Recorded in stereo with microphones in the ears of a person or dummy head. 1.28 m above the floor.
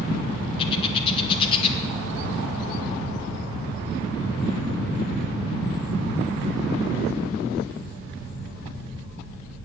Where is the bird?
30° left (ahead or behind), 1.6 m.